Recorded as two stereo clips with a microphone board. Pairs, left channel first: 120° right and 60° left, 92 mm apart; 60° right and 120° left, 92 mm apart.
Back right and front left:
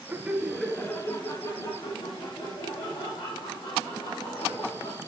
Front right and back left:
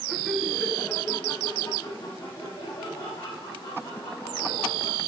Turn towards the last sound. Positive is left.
turn(degrees=-110)